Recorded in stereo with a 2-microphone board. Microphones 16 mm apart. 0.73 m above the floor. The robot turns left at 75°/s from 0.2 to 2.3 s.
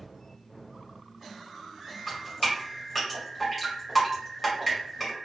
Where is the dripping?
5° left (ahead or behind), 1.4 m; by 5.1 s 10° right (ahead or behind), 1.4 m.